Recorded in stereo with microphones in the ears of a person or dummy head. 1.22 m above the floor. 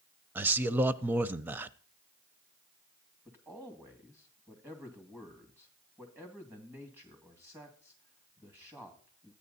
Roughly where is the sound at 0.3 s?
Centre.